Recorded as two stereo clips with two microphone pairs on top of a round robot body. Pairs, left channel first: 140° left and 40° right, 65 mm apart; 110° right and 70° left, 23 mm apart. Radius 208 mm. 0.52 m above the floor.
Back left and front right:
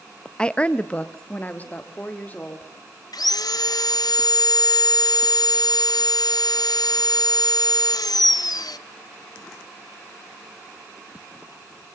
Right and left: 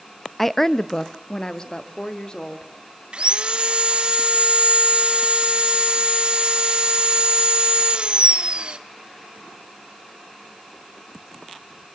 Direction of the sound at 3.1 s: 125° left.